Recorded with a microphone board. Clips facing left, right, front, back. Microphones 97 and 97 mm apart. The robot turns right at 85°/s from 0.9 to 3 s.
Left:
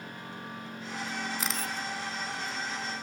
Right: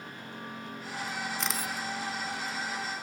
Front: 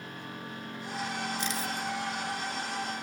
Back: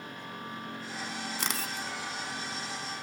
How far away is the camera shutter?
About 0.8 m.